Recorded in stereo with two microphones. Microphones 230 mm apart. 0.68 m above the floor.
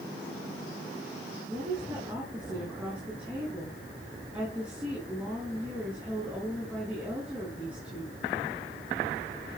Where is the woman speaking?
5° right (ahead or behind), 8 m.